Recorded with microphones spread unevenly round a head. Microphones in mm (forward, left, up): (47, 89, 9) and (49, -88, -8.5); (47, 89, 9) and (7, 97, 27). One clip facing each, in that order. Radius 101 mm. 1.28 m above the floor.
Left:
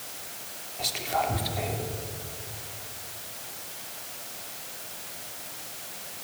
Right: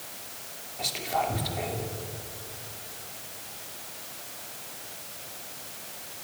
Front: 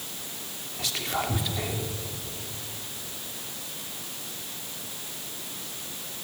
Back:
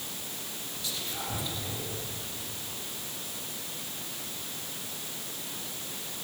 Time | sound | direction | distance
0.8 | whispering | straight ahead | 2.5 m